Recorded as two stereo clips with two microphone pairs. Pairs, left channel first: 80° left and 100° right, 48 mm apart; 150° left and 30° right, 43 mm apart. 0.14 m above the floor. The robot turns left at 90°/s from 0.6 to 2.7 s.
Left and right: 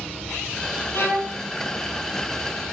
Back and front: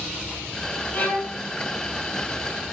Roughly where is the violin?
Behind left.